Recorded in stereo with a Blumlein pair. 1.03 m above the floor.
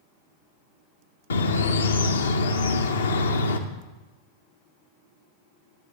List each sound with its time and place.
1.3 s a bird: 70° left, 0.6 m